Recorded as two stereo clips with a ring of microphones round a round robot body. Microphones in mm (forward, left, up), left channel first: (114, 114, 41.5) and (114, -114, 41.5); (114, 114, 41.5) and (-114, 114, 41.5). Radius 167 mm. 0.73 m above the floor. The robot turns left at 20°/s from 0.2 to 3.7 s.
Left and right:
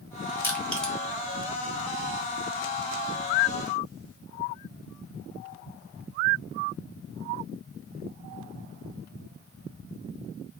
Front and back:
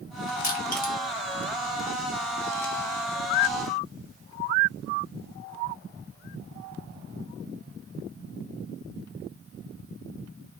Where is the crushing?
15° left, 1.1 m; by 0.9 s 5° left, 1.1 m.